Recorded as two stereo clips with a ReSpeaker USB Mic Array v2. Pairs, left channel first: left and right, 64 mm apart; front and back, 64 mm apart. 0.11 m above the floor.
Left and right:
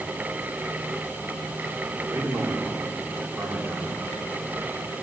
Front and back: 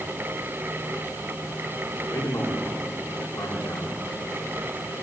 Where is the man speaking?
60° right, 10 m.